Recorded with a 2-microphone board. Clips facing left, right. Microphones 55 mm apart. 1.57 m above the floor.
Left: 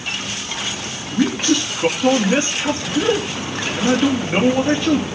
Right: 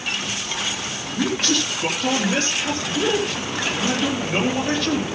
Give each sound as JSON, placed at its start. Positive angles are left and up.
{"t": 1.1, "sound": "a man speaking", "side_deg": 20, "distance_m": 3.0}